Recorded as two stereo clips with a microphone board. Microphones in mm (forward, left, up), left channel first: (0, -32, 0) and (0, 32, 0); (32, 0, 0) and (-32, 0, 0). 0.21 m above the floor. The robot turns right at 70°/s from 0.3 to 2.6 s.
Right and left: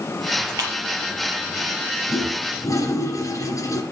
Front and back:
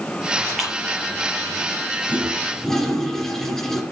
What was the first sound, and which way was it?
A splash, 85° left.